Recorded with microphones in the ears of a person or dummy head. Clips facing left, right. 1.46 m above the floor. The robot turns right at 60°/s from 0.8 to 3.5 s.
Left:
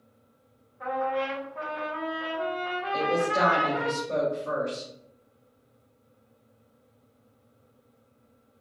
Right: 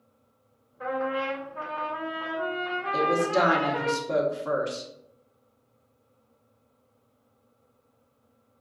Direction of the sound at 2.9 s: 130° right.